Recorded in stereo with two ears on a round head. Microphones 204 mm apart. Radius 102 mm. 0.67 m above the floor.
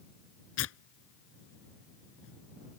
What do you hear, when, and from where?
0.6 s tearing paper: 65° left (ahead or behind)